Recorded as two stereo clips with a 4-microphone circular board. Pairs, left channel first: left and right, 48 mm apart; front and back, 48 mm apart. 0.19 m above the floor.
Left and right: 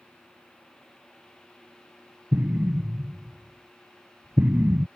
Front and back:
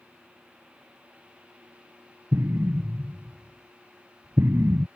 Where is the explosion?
150° right.